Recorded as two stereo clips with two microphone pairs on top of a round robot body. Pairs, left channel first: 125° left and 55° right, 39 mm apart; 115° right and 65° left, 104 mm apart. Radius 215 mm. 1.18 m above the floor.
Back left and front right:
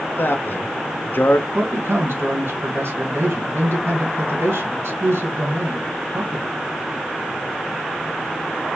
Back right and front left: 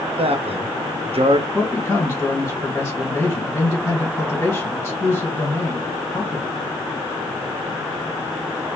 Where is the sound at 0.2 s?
90° left, 0.8 m.